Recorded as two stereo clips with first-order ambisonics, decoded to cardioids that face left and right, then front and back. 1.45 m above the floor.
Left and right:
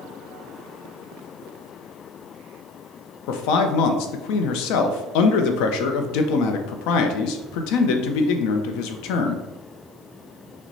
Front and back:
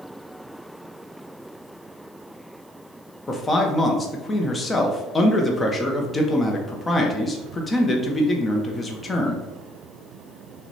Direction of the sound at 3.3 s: 75° left.